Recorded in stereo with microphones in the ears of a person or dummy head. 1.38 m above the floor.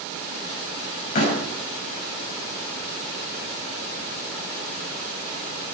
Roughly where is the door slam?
Left.